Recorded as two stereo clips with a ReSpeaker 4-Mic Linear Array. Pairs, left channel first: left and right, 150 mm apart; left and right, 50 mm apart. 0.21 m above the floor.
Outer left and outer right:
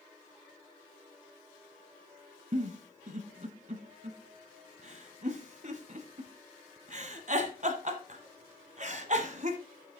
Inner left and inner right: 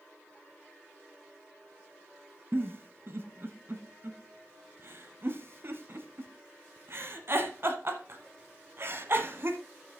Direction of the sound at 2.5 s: 50° right (ahead or behind).